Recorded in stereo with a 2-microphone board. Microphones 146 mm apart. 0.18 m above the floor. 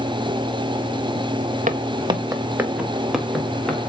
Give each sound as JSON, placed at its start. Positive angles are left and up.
{"t": 1.7, "sound": "footsteps", "side_deg": -60, "distance_m": 0.8}